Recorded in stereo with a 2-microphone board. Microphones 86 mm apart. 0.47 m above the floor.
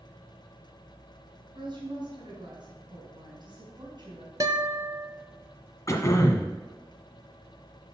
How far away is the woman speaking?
About 3.5 m.